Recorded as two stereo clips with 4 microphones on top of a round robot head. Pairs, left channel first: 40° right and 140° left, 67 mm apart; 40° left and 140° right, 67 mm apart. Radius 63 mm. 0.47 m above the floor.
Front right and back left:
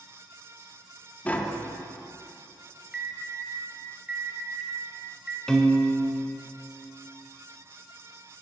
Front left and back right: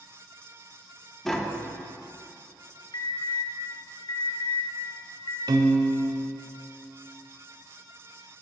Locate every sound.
1.2 s tapping: 40° right, 0.8 m
2.9 s an alarm: 60° left, 1.0 m
5.5 s a piano: 120° right, 0.7 m